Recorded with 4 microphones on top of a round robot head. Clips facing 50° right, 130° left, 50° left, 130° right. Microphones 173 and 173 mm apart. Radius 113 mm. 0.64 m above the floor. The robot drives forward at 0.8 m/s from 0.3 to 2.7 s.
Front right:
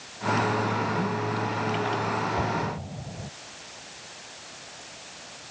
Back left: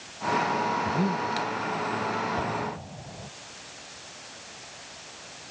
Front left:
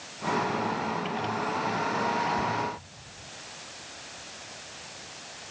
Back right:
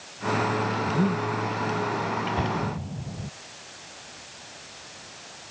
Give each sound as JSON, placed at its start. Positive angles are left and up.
{"t": 0.8, "sound": "breathing", "azimuth_deg": -160}
{"t": 2.4, "sound": "an explosion", "azimuth_deg": -125}